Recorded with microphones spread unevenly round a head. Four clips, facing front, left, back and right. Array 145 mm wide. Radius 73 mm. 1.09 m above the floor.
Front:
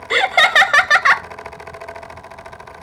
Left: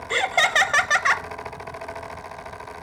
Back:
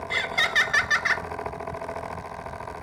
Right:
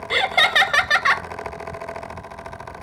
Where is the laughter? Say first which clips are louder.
Right 2 dB, front 13 dB; straight ahead, 0.5 m.